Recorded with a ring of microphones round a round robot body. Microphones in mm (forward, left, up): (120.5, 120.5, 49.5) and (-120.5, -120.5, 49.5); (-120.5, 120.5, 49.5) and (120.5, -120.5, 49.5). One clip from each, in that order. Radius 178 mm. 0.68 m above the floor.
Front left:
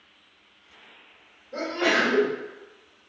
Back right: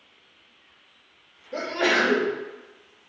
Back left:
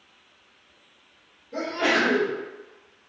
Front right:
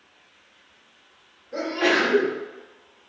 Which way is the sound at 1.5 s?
120° right.